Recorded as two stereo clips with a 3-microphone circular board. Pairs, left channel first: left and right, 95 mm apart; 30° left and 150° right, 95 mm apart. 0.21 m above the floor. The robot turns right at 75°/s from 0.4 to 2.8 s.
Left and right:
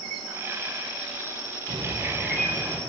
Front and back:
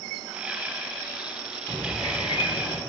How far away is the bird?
About 5.5 m.